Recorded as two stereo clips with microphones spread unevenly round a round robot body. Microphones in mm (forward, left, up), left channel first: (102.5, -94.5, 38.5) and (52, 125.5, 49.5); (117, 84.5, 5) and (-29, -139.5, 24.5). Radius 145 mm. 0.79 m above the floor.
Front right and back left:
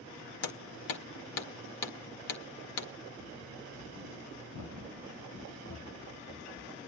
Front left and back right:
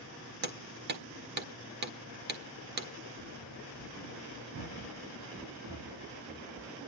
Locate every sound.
0.4 s hammering: 70° right, 1.6 m
3.2 s running footsteps: 100° right, 2 m; by 6.7 s 110° right, 6 m